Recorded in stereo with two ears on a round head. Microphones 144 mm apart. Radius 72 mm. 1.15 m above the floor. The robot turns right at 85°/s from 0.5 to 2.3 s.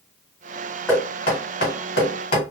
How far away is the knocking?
About 1.7 m.